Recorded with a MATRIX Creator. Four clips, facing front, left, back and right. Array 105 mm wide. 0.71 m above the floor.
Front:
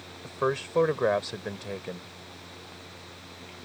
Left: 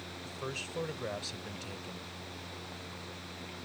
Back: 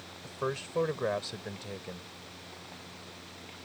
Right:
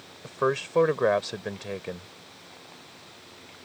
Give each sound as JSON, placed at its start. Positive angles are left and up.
{"t": 0.2, "sound": "a man speaking", "azimuth_deg": -65}